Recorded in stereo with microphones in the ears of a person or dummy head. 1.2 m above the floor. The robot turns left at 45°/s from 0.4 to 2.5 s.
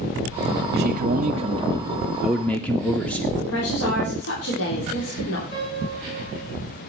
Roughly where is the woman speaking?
Left.